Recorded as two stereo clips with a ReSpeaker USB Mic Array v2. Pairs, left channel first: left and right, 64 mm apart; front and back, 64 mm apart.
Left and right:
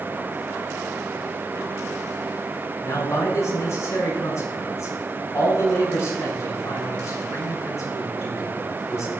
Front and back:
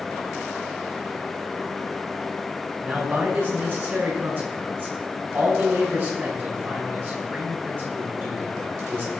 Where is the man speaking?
130° left, 5 m.